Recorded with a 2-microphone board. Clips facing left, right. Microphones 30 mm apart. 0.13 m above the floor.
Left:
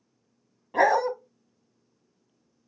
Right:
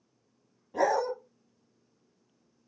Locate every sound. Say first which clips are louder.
0.7 s a dog barking: left 5 dB; 50° left (ahead or behind), 0.9 m